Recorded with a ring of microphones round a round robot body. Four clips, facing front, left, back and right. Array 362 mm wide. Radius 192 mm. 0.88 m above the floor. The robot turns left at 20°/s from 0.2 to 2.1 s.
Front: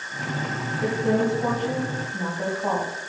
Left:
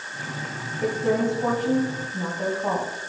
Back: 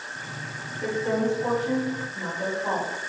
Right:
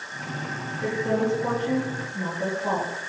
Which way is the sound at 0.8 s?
65° left.